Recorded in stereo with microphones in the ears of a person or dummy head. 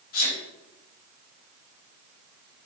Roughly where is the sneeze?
Left.